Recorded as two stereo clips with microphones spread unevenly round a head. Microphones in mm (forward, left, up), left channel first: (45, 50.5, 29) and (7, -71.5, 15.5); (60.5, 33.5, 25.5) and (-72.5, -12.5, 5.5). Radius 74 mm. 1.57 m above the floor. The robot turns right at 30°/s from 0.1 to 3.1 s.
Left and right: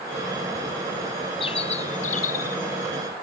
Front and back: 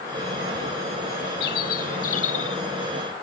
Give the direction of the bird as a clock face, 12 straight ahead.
11 o'clock.